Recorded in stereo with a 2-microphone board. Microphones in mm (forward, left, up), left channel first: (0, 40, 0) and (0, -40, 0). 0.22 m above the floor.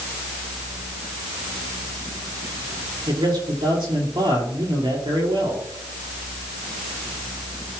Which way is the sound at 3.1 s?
75° right (ahead or behind).